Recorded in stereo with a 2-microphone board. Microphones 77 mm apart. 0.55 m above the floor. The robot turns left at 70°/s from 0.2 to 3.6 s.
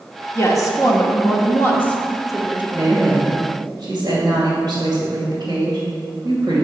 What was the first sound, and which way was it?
A woman speaking, 135° left.